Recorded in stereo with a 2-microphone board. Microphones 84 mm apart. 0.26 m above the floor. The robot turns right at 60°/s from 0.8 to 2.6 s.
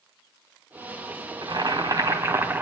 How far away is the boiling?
About 1.5 m.